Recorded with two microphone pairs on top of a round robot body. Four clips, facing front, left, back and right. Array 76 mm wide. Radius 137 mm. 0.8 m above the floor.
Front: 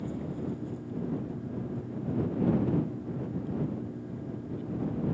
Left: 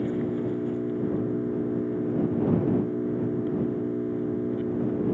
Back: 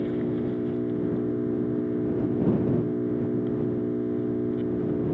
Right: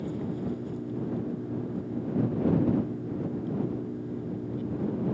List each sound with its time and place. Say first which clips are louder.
0.0 s an engine running: left 6 dB, back 9 dB; 140° left